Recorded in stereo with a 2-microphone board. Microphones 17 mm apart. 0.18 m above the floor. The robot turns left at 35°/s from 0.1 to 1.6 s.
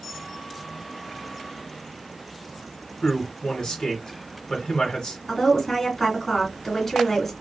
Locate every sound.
3.0 s a man speaking: 50° left (ahead or behind), 2.5 m
5.3 s a woman speaking: 20° left (ahead or behind), 2 m